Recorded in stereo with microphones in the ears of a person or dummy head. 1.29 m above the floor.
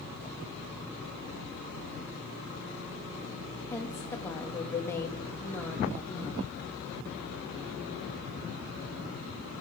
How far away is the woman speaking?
About 1.7 m.